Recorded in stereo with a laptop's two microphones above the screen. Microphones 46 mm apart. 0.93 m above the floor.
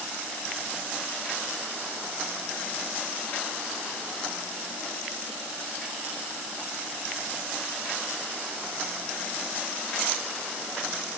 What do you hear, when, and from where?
Only background noise.